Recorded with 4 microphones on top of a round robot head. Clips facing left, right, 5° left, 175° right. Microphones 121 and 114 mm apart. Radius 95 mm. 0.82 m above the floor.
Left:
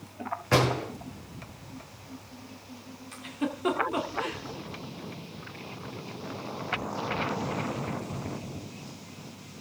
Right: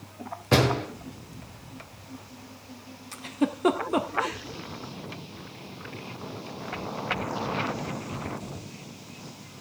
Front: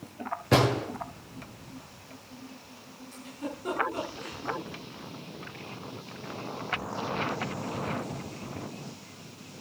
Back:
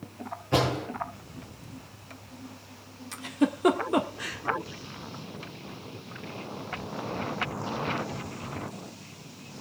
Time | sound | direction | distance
0.5 | a door slam | 25° right | 9.5 m
3.1 | a giggle | 150° right | 1.5 m